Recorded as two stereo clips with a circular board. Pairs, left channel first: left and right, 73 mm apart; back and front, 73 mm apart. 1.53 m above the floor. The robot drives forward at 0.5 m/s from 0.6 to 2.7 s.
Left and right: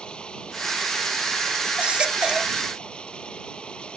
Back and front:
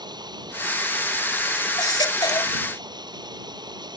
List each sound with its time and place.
0.0 s running water: 15° left
1.8 s a baby crying: 165° right